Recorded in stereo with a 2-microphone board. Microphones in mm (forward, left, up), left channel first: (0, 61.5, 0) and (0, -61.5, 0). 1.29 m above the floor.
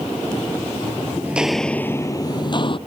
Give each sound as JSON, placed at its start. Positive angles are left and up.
{"t": 1.2, "sound": "footsteps", "side_deg": -15}